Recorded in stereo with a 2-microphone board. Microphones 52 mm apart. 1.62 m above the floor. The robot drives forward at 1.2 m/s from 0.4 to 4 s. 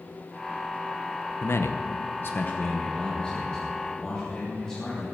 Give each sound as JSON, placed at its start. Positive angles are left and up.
{"t": 1.4, "sound": "a man speaking", "side_deg": 45, "distance_m": 0.9}